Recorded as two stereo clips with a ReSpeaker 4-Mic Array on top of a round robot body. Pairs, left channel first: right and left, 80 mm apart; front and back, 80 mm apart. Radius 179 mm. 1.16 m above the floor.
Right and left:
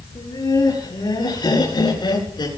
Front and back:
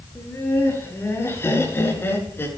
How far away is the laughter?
About 9 m.